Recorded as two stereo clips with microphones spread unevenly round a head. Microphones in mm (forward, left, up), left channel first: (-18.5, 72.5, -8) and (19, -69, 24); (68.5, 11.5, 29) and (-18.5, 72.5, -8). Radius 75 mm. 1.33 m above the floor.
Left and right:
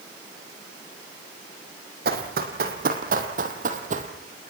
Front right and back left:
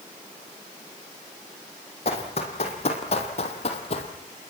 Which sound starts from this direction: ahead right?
Running footsteps, at 2.0 s.